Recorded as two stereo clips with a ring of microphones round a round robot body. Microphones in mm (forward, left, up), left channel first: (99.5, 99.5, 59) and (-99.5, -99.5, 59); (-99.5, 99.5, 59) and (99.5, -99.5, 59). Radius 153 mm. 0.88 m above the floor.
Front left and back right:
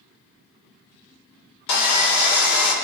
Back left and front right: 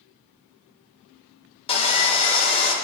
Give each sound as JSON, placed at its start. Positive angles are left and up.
{"t": 1.7, "sound": "sawing", "azimuth_deg": 65, "distance_m": 2.0}